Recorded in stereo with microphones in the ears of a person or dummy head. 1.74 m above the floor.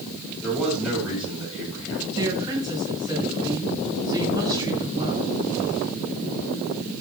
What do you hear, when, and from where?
0.4 s a man speaking: 5° right (ahead or behind), 6.5 m
2.2 s a woman speaking: 20° right (ahead or behind), 6.5 m